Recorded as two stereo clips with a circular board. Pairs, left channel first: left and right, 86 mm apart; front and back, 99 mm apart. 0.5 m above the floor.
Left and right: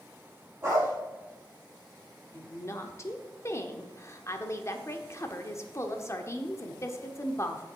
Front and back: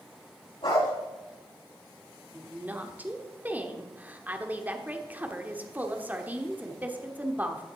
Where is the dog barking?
25° right, 5 m.